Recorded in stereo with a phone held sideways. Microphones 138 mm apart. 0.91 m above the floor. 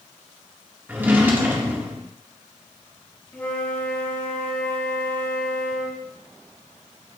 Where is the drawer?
15° right (ahead or behind), 1.0 m.